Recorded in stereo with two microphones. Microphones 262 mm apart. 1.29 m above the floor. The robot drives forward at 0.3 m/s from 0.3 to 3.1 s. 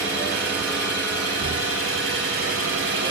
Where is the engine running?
40° left (ahead or behind), 1.5 m; by 3.1 s 60° left (ahead or behind), 1.1 m.